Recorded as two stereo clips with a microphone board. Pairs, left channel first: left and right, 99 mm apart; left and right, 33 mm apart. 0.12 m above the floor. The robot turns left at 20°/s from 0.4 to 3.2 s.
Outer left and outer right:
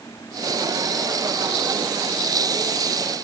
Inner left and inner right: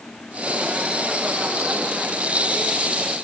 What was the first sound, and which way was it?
Only background noise.